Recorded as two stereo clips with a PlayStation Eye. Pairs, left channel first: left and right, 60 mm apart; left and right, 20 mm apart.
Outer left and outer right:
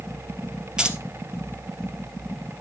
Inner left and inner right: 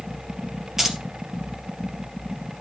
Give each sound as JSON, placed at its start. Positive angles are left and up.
{"t": 0.8, "sound": "keys jangling", "side_deg": -15, "distance_m": 2.0}